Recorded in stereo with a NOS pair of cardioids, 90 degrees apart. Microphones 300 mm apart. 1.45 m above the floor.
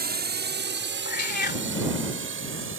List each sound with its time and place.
0.0 s a drone: 30° right; by 2.8 s 40° right
1.1 s a cat meowing: 35° left